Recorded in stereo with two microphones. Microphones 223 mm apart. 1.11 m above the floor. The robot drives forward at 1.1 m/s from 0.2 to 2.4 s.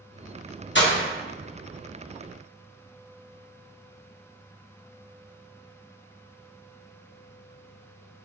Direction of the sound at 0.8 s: 55° left (ahead or behind).